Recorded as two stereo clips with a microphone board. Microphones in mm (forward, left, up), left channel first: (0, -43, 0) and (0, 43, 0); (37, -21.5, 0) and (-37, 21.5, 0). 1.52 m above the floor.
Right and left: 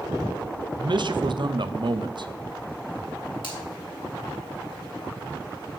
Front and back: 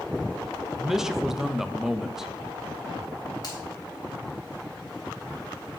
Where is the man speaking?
65° left, 0.5 m.